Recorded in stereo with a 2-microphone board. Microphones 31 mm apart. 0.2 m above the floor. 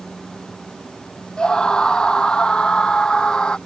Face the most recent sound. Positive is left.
turn(degrees=30)  # may be behind; listen again after turning